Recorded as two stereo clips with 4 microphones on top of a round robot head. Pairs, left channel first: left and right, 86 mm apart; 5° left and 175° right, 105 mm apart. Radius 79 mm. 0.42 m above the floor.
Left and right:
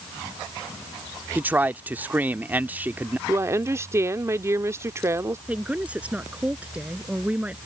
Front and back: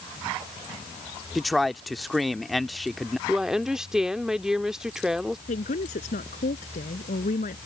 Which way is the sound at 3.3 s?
95° right.